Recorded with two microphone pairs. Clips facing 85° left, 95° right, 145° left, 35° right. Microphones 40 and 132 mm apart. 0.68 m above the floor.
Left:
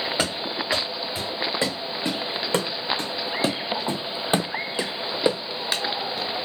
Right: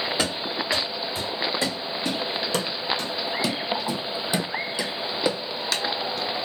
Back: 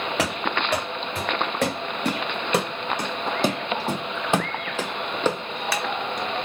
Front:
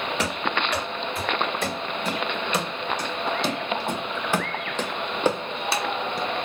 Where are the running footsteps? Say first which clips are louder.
Even, back 2 dB; 150° left, 2.5 m; by 6.3 s 10° left, 1.2 m.